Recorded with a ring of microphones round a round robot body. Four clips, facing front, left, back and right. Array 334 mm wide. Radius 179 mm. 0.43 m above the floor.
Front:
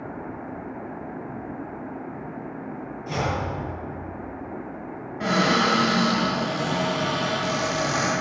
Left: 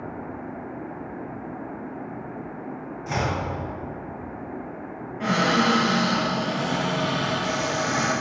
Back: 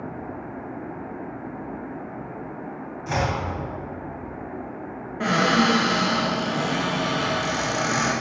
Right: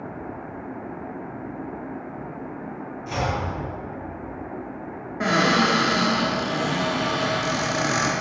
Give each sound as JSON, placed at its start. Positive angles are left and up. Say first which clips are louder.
{"t": 3.1, "sound": "chopping", "louder": "even, back 2 dB", "azimuth_deg": 160, "distance_m": 2.5}
{"t": 5.2, "sound": "a cupboard door", "louder": "right 1 dB, back 1 dB", "azimuth_deg": -115, "distance_m": 4.0}